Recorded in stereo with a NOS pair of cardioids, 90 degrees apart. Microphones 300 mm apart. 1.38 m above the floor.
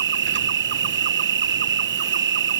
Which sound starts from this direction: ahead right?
An insect, at 0.0 s.